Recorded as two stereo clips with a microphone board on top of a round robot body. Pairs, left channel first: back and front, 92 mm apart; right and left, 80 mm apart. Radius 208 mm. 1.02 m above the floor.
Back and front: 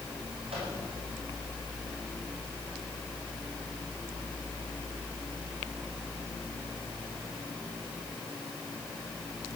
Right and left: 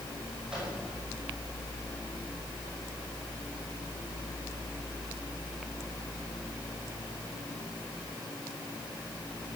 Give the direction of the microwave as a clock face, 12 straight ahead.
12 o'clock.